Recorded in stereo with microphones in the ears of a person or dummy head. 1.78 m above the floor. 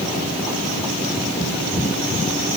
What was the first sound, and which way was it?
Only background noise.